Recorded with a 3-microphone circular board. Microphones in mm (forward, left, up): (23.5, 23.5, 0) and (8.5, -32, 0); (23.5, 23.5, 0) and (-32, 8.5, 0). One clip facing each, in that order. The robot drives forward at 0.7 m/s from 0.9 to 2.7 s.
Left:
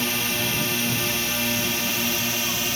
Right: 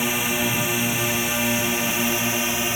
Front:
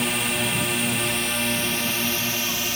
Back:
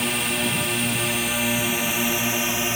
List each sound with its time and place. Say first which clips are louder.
0.0 s a drone: right 3 dB, even; 75° right; by 2.8 s 135° right